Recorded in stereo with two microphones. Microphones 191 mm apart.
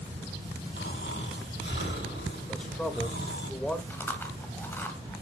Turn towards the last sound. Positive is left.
turn(degrees=10)  # may be behind; listen again after turning